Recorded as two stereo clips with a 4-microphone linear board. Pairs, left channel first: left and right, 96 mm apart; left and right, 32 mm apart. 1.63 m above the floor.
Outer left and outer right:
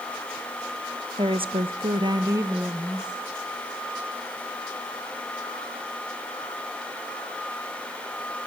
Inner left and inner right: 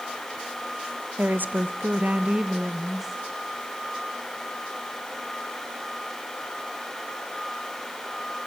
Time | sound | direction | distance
1.2 | a woman speaking | 60° right (ahead or behind) | 1.4 m